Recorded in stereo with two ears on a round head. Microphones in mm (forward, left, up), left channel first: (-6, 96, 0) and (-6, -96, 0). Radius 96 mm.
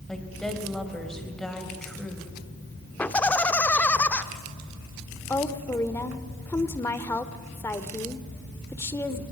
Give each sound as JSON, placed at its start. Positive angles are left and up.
{"t": 0.1, "sound": "a woman speaking", "side_deg": 5, "distance_m": 3.0}
{"t": 3.0, "sound": "laughter", "side_deg": 5, "distance_m": 0.9}
{"t": 5.3, "sound": "a woman speaking", "side_deg": 10, "distance_m": 1.2}